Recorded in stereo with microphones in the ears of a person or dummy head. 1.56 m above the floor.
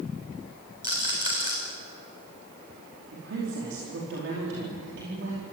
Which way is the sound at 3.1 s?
75° right (ahead or behind).